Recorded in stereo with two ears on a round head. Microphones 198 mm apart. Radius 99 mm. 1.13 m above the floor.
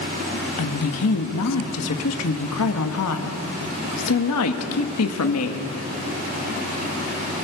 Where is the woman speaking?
75° left (ahead or behind), 1.7 m.